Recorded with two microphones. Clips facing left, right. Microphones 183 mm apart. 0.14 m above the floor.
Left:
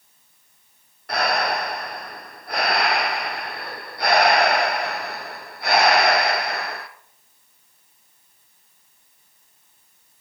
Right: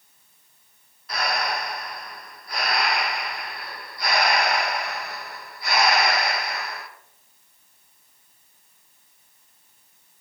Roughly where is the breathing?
Left.